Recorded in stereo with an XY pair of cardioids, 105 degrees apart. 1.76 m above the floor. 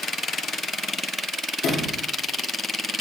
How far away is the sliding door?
About 1.2 m.